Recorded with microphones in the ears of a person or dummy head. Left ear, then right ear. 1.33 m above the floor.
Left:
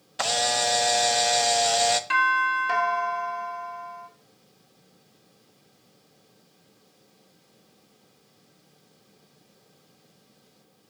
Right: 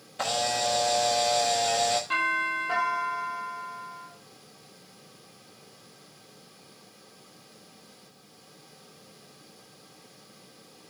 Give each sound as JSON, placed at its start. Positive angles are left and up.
{"t": 0.2, "sound": "a camera shutter", "side_deg": 45, "distance_m": 0.7}
{"t": 2.1, "sound": "a doorbell", "side_deg": 60, "distance_m": 3.0}